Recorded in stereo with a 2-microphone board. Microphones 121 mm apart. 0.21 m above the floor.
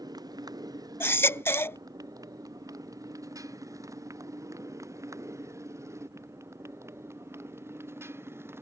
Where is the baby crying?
20° left (ahead or behind).